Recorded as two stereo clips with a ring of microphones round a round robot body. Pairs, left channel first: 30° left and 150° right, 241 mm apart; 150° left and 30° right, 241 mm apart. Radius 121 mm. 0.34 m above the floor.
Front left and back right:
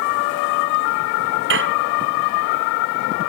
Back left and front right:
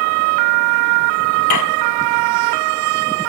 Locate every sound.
1.5 s dishes clattering: 165° left